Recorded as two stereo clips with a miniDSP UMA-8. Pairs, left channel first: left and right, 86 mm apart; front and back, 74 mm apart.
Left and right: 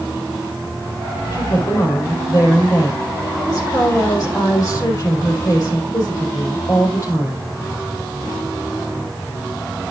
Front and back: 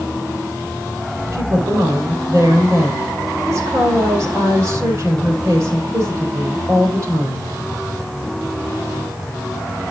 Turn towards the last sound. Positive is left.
turn(degrees=140)